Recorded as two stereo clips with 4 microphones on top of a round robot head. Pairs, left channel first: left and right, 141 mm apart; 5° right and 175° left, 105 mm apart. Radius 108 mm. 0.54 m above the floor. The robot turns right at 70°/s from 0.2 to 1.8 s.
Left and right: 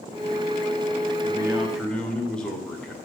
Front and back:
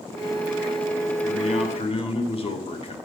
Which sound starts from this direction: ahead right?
A man speaking, at 1.2 s.